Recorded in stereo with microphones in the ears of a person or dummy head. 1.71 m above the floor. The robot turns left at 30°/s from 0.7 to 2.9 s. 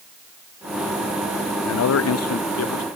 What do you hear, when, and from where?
1.6 s a man speaking: 105° left; by 2.9 s 70° left